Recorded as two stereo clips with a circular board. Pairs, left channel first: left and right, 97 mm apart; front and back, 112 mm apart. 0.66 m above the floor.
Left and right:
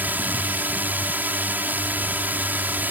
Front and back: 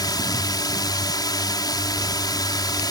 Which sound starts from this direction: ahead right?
A drone, at 0.0 s.